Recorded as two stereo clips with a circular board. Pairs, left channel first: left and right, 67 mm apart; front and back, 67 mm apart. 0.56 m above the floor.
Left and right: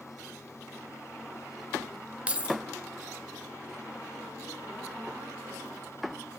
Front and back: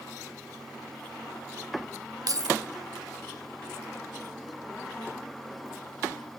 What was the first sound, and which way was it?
Keys jangling, 160° right.